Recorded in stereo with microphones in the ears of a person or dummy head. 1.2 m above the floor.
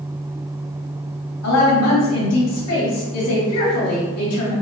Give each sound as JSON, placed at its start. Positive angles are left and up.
{"t": 1.4, "sound": "a woman speaking", "side_deg": 75, "distance_m": 2.0}